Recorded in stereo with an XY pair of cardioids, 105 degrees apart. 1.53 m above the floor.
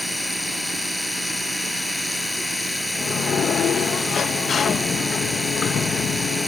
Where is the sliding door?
55° left.